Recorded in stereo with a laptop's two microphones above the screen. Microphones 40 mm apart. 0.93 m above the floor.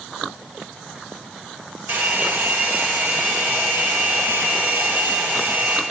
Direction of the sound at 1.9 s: 55° right (ahead or behind).